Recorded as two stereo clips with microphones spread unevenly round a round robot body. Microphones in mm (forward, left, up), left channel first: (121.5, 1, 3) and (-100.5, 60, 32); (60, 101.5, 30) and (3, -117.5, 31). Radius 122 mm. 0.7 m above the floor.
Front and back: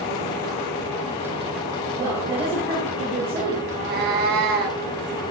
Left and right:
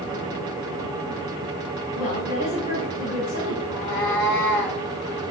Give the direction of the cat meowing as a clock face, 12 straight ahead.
8 o'clock.